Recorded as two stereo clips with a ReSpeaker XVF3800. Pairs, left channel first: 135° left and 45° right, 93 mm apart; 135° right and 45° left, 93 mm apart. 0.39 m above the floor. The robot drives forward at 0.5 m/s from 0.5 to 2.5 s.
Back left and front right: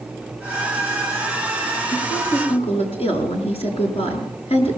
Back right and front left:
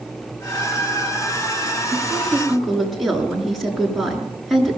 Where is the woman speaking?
130° left, 6 m; by 4.8 s 135° left, 6.5 m.